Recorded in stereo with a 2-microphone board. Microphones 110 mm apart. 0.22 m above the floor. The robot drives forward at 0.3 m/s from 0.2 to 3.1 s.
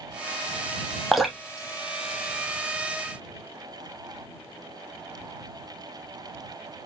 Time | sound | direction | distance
1.1 | dripping | centre (ahead or behind) | 0.7 m